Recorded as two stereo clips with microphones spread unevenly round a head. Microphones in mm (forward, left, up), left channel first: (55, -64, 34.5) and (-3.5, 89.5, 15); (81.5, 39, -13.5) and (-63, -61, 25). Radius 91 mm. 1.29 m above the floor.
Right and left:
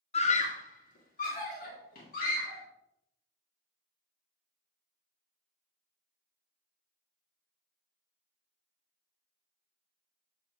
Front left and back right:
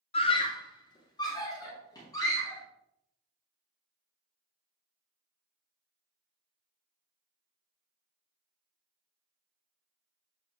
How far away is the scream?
About 0.6 m.